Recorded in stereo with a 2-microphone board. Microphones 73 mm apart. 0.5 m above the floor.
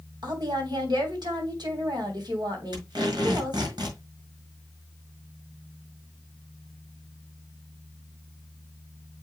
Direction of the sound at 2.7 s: 70° right (ahead or behind).